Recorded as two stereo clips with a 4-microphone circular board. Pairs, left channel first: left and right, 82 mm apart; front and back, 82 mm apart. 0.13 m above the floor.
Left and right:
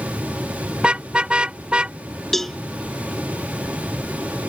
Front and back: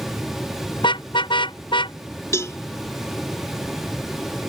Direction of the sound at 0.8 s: 10° right.